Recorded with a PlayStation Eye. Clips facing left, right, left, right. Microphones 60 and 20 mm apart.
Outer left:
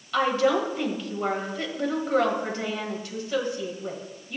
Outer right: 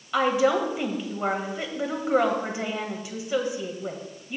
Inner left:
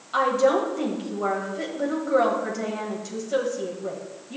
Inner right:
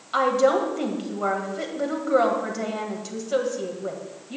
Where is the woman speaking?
15° right (ahead or behind), 2 m.